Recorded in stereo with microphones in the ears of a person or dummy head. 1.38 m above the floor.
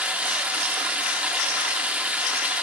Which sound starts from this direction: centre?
Running water, at 0.0 s.